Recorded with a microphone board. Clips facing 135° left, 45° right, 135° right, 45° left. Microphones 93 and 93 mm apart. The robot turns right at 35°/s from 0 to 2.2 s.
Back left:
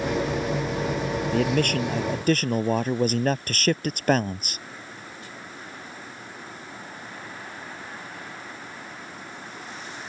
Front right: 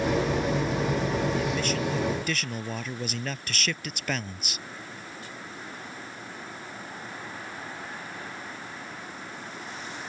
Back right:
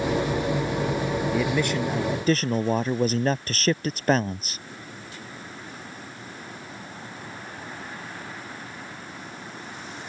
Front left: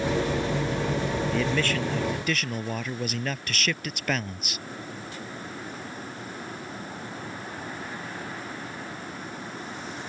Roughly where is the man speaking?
Behind left.